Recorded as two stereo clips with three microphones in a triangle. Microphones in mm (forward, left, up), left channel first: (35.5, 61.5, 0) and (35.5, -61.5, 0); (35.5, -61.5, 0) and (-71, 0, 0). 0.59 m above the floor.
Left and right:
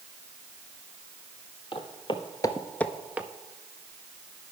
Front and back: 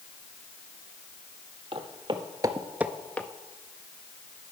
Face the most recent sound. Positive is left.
turn(degrees=-55)